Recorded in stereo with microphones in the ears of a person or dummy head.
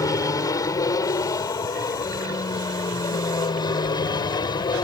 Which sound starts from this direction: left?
An aircraft, at 0.0 s.